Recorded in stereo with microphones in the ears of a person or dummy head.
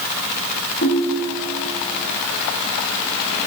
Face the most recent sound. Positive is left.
turn(degrees=55)  # may be behind; listen again after turning